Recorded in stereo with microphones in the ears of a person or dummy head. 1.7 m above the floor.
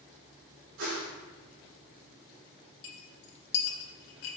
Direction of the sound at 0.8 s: 75° right (ahead or behind).